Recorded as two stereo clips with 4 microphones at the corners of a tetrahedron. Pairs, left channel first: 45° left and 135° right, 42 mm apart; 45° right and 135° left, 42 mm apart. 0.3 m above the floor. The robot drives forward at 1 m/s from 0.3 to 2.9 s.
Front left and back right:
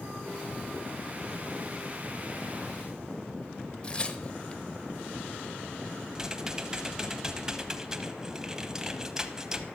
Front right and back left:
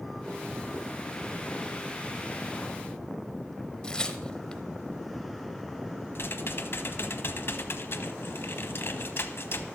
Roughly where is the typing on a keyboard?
Ahead right.